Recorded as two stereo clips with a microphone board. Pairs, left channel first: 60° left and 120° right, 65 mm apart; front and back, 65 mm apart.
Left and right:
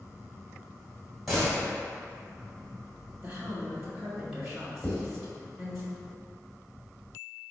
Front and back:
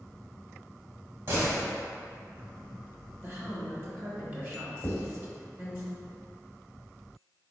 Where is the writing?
30° left, 1.6 m.